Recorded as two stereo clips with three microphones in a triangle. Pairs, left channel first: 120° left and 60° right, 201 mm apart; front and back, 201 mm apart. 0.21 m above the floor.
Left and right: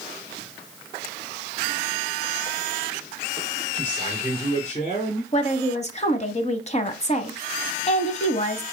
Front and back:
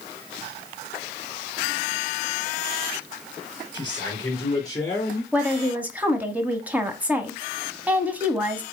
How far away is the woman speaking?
About 1.2 m.